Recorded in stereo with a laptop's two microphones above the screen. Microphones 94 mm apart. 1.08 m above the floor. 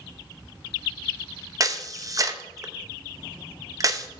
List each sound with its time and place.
1.6 s a camera shutter: 40° right (ahead or behind), 0.6 m